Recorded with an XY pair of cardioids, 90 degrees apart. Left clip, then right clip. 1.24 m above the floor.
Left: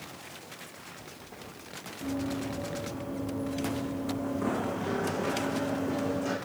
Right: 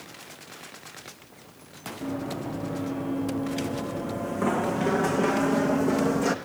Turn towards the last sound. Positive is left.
turn(degrees=-75)